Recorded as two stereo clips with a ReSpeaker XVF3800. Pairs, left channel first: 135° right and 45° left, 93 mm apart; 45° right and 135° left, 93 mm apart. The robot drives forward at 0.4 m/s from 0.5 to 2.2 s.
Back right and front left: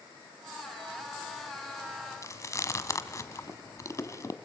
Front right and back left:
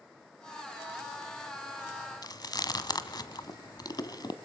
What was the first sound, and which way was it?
Chewing, 85° right.